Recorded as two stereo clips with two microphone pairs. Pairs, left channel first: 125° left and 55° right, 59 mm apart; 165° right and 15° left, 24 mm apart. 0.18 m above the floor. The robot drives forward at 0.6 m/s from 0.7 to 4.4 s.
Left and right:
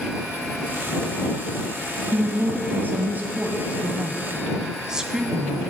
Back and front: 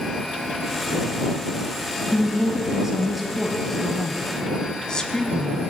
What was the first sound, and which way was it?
A woman speaking, 35° right.